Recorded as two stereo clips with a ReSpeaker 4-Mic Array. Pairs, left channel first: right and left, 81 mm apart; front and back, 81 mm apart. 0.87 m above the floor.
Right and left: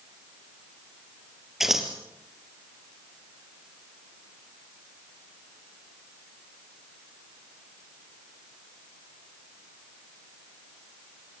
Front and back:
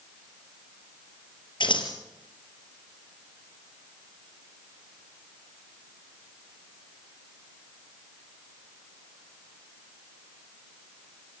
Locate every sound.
1.6 s scissors: 5° left, 3 m